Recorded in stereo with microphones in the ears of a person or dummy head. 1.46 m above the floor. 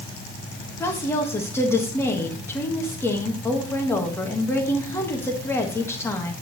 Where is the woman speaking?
15° left (ahead or behind), 1.6 m.